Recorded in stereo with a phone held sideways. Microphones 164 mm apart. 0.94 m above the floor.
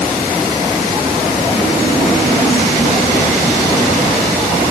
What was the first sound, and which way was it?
Only background noise.